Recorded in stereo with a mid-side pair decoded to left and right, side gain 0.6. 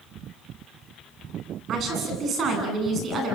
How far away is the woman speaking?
About 9 m.